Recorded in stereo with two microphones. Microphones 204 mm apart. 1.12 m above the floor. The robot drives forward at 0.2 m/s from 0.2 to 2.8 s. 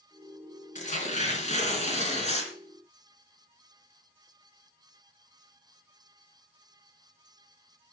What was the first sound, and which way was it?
Tearing paper, 35° left (ahead or behind).